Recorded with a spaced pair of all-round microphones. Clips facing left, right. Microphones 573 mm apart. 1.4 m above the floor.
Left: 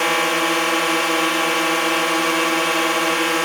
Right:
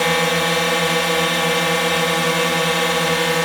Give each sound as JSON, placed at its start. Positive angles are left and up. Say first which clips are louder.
{"t": 0.0, "sound": "a drone", "louder": "right 2 dB", "side_deg": -55}